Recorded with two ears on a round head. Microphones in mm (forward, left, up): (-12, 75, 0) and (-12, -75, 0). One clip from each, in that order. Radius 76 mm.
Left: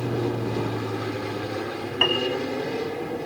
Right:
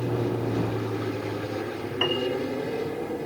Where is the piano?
40° left (ahead or behind).